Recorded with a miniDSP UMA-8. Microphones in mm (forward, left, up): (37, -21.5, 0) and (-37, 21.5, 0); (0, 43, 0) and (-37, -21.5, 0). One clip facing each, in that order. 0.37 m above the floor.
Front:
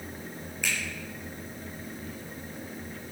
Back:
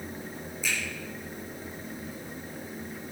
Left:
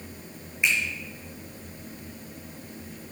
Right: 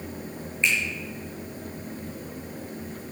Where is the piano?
I don't hear a piano.